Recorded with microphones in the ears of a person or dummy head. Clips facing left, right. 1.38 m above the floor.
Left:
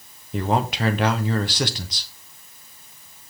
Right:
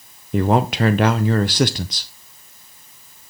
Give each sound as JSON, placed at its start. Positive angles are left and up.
{"t": 0.3, "sound": "a man speaking", "side_deg": -50, "distance_m": 0.6}